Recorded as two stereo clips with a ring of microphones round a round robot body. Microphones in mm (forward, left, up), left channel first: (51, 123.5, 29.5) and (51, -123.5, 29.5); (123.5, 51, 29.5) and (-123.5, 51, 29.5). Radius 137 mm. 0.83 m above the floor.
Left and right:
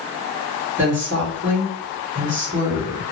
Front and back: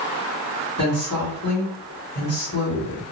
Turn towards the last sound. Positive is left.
turn(degrees=-50)